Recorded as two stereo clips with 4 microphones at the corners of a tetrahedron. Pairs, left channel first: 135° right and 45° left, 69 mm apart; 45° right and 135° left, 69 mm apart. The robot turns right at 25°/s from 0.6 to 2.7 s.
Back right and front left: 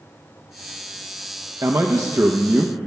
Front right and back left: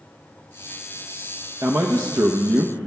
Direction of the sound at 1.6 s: 85° left.